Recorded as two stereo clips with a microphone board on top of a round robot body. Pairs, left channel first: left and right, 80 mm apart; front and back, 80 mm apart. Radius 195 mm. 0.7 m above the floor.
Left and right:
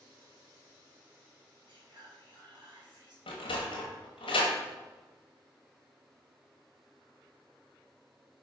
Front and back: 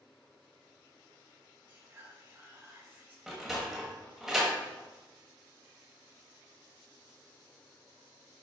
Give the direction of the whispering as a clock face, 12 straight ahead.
4 o'clock.